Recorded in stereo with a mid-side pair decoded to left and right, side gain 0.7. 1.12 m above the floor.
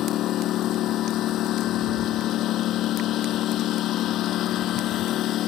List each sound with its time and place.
0.0 s a lawn mower: 50° left